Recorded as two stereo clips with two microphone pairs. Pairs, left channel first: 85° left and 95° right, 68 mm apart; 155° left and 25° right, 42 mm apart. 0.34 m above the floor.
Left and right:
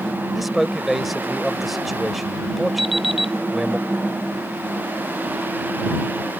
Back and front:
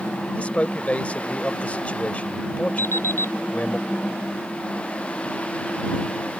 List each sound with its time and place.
0.3 s a man speaking: straight behind
2.8 s an alarm clock: 175° left